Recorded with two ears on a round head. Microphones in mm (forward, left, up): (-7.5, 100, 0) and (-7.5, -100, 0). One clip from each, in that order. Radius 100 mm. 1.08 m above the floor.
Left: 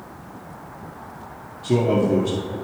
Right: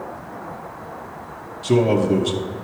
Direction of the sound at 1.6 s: 55° right (ahead or behind).